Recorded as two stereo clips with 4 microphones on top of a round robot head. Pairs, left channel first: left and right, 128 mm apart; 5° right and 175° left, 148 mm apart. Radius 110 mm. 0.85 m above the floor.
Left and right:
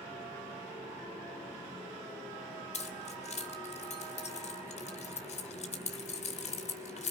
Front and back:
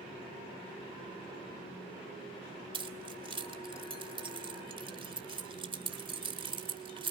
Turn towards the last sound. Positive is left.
turn(degrees=120)